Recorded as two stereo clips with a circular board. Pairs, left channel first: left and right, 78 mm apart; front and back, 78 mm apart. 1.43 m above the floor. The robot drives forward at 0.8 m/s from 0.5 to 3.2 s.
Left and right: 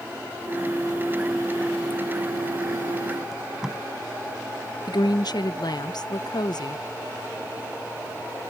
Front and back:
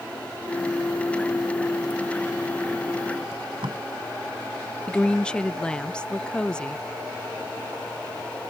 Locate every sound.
3.3 s tape being pulled: 170° right
4.9 s a woman speaking: 75° left